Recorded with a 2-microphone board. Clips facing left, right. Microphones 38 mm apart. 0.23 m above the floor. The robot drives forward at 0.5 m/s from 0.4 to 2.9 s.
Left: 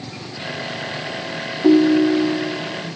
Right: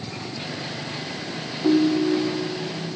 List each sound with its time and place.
1.6 s a ringtone: 30° left (ahead or behind), 0.8 m; by 2.6 s 35° left (ahead or behind), 0.7 m